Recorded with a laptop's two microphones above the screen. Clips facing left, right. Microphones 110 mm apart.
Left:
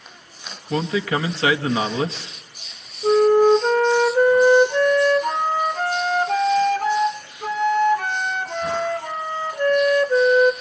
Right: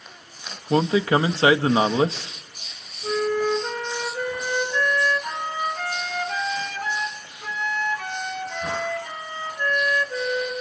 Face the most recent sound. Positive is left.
turn(degrees=55)  # may be behind; listen again after turning